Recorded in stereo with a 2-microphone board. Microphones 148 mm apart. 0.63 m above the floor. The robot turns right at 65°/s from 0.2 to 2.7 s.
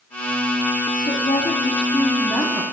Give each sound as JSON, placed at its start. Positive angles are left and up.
{"t": 1.0, "sound": "a woman speaking", "azimuth_deg": 90, "distance_m": 0.9}